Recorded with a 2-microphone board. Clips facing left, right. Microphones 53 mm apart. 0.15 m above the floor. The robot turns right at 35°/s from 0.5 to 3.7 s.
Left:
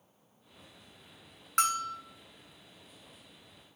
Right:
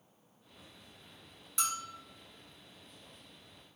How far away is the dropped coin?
I don't hear a dropped coin.